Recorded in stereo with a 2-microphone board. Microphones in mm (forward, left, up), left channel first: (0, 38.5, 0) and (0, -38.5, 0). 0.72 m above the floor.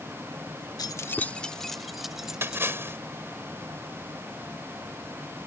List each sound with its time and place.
0.8 s keys jangling: 60° left (ahead or behind); by 3.0 s 10° right (ahead or behind)
2.4 s a splash: 30° right (ahead or behind)